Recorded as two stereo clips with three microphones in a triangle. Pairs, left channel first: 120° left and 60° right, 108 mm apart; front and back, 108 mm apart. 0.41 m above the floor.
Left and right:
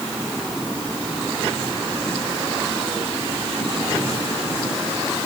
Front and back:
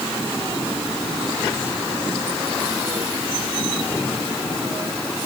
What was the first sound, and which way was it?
Only background noise.